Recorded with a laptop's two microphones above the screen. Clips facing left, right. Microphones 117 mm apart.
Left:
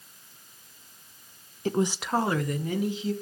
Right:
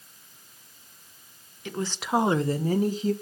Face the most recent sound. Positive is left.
turn(degrees=-40)  # may be behind; listen again after turning